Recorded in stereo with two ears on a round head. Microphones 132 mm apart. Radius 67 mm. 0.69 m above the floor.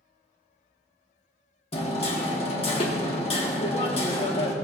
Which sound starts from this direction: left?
Hammering, at 1.7 s.